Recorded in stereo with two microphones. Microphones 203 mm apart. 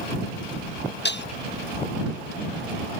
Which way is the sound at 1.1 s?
60° left (ahead or behind).